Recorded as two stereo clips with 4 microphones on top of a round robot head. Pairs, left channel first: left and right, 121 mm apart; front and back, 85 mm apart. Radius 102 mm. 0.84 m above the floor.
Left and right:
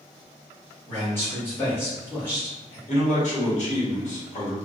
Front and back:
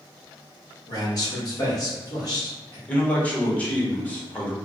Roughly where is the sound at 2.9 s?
Left.